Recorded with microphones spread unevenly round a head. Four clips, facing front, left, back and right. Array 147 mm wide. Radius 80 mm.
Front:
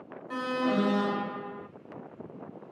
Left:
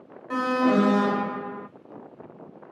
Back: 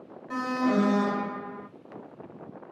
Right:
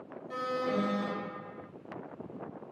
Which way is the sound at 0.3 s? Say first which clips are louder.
Left 11 dB, back 3 dB; 95° left.